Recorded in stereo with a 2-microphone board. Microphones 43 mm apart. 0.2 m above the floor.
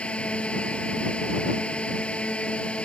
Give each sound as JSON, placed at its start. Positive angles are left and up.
{"t": 0.0, "sound": "a drone", "side_deg": 25}